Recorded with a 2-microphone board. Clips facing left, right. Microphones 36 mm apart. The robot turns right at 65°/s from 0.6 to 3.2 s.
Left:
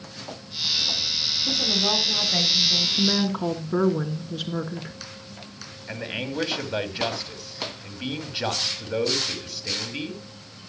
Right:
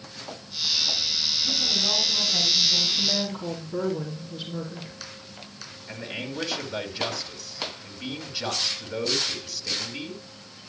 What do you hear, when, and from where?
1.5 s a woman speaking: 60° left, 5 m; by 2.9 s 150° left, 5 m
3.0 s a woman speaking: 55° left (ahead or behind), 3 m; by 5.0 s 70° left (ahead or behind), 3 m
5.9 s a man speaking: 25° left (ahead or behind), 2 m